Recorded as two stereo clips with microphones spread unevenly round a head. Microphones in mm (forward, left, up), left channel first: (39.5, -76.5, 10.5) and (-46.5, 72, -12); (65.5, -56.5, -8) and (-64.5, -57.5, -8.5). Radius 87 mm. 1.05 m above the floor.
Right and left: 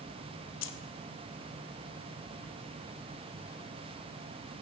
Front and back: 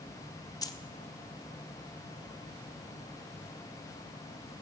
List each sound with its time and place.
0.6 s keys jangling: 65° right, 0.8 m